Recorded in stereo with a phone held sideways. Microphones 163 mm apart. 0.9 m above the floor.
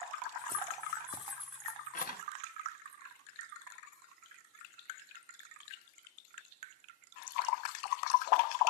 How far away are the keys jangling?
About 1.7 m.